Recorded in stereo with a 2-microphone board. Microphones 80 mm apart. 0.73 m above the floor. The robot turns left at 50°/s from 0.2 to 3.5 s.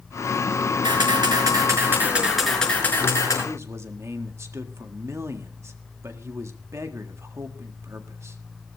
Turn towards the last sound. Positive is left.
turn(degrees=-35)  # may be behind; listen again after turning